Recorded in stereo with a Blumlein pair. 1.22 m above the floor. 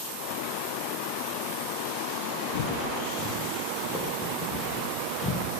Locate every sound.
2.5 s footsteps: 45° left, 8.5 m; by 5.5 s 20° left, 10 m